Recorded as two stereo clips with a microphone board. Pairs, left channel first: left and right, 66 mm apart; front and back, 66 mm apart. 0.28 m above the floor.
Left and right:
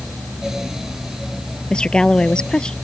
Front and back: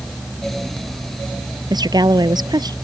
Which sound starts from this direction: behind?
A woman speaking, at 1.7 s.